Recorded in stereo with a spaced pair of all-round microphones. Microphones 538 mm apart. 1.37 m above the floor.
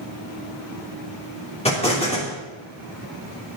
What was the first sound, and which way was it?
An explosion, 10° left (ahead or behind).